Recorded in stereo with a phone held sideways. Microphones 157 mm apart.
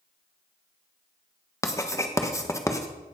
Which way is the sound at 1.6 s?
20° left (ahead or behind).